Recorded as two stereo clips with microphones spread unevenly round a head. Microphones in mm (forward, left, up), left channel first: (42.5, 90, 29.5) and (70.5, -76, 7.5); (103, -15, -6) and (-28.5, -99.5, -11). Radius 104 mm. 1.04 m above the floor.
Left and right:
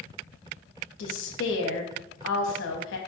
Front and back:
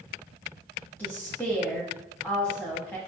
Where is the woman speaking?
115° left, 1.3 m.